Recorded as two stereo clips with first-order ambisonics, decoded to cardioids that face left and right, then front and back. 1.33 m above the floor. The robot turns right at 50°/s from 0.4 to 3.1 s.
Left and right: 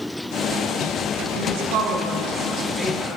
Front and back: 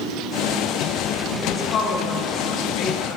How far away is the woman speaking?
About 1.9 m.